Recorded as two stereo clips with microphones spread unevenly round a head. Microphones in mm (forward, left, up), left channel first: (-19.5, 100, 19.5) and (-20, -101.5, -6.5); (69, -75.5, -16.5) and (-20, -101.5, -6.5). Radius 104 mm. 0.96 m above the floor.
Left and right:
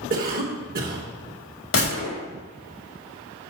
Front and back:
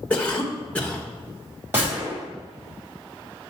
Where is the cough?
55° right, 1.1 m.